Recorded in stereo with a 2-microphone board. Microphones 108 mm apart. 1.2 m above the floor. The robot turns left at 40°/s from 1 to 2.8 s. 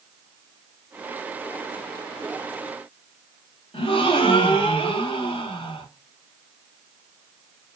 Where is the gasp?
50° left (ahead or behind), 0.8 m.